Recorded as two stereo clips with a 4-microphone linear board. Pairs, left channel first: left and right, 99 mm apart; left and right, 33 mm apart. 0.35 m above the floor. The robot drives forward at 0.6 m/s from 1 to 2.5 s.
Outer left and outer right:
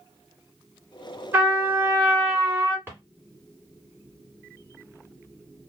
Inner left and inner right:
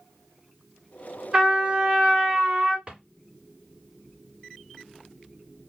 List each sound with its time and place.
1.3 s a trumpet: 25° right (ahead or behind), 1.5 m; by 2.8 s 20° right (ahead or behind), 1.6 m
2.9 s a drawer: 25° right (ahead or behind), 1.6 m